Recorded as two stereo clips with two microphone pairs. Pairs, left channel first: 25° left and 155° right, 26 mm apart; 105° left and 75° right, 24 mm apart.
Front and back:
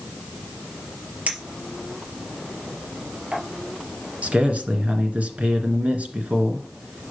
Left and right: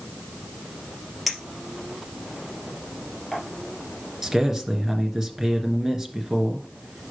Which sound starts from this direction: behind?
A clink, at 1.3 s.